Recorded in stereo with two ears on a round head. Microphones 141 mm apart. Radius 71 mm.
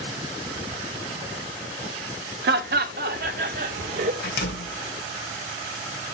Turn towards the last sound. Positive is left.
turn(degrees=75)  # may be behind; listen again after turning